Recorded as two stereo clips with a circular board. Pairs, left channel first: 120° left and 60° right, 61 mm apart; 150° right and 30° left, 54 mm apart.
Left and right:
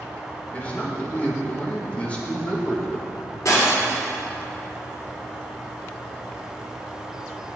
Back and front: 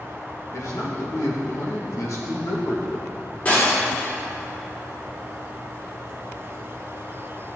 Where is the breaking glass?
155° left, 3 m.